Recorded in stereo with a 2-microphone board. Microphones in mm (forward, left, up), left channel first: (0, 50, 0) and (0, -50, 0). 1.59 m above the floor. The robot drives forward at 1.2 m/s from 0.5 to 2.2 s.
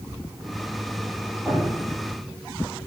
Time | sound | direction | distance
1.4 | dripping | 10° left (ahead or behind) | 10 m